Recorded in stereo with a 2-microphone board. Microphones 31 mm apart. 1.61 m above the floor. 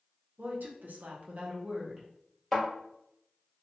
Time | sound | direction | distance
0.4 | a woman speaking | 65° right (ahead or behind) | 0.8 m
2.5 | a thud | 5° left (ahead or behind) | 1.8 m